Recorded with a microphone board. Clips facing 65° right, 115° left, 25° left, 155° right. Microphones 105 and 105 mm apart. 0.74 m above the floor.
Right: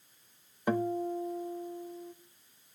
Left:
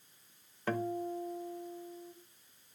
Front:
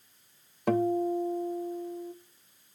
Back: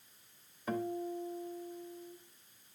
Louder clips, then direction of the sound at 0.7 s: Right 4 dB, front 11 dB; 5° left.